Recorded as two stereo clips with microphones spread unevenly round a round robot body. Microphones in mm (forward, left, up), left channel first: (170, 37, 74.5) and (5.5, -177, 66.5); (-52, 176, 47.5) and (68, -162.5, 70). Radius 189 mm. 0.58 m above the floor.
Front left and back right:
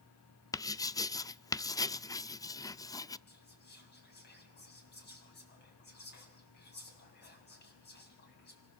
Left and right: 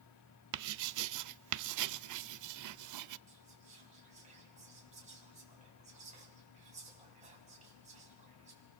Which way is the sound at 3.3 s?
Straight ahead.